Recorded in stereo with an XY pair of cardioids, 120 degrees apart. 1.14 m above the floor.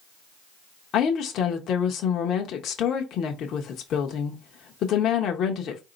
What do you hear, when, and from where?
0.9 s a woman speaking: 60° left, 1.0 m